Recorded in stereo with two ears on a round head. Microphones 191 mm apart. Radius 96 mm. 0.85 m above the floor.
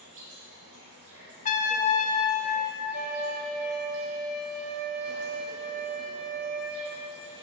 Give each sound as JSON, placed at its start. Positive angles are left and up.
{"t": 0.0, "sound": "an insect", "side_deg": -70, "distance_m": 3.0}
{"t": 1.4, "sound": "a trumpet", "side_deg": 35, "distance_m": 0.5}
{"t": 2.9, "sound": "a flute", "side_deg": -40, "distance_m": 0.8}